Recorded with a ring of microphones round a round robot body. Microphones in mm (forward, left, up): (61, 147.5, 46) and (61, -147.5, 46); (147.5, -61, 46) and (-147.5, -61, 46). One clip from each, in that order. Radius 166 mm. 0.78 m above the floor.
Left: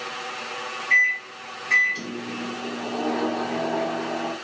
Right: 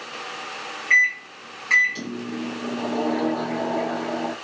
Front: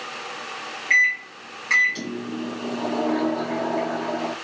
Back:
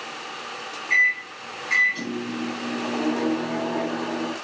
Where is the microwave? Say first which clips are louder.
Right 1 dB, front 1 dB; 30° right, 0.6 m.